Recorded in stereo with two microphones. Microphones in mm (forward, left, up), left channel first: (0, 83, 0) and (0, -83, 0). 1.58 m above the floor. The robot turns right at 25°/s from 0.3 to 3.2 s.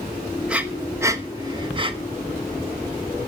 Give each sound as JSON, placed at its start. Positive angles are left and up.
{"t": 0.5, "sound": "breathing", "side_deg": -5, "distance_m": 1.1}